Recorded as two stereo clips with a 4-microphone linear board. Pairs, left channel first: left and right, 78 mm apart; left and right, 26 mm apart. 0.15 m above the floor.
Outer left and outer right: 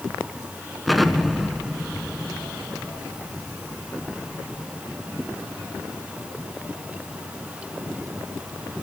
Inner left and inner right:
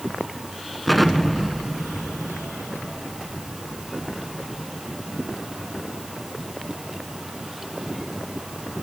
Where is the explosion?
Centre (ahead or behind), 1.2 m.